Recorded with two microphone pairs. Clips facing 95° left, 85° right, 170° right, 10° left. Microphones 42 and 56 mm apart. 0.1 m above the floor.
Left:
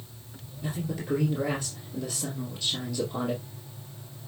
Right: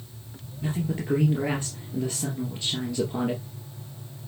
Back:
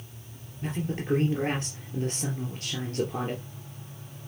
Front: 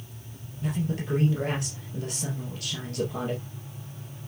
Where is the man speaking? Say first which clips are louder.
Right 4 dB, front 2 dB; 130° right, 2.5 m.